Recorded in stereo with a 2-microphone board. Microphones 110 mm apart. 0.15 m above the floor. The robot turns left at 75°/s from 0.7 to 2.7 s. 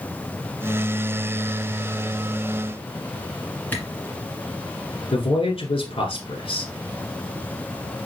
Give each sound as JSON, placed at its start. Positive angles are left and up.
{"t": 3.7, "sound": "a camera shutter", "side_deg": 15, "distance_m": 1.9}
{"t": 5.1, "sound": "a man speaking", "side_deg": 55, "distance_m": 1.6}